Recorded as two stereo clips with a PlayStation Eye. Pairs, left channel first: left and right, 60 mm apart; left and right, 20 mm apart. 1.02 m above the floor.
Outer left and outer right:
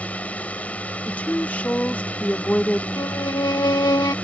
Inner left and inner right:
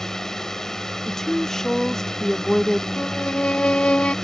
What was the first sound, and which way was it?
A drone, 25° left (ahead or behind).